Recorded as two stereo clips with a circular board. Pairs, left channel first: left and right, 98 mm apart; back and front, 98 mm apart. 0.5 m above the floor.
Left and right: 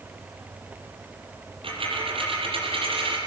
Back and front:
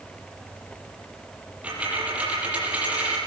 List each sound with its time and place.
1.6 s a dropped coin: 75° right, 7 m